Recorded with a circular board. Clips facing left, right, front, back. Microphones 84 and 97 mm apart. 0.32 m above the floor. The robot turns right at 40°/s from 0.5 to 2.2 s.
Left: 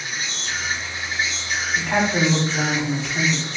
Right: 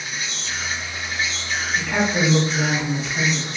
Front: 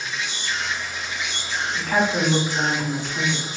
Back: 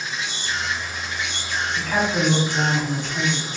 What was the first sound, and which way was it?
An insect, 130° left.